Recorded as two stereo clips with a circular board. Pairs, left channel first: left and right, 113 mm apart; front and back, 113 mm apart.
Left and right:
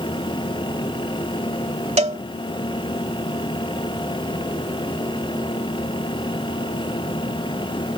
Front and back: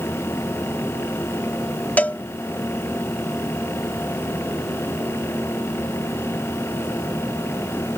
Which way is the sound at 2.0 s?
75° right.